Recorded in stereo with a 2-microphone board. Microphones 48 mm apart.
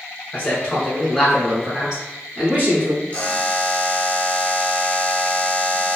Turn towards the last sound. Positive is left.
turn(degrees=25)  # may be behind; listen again after turning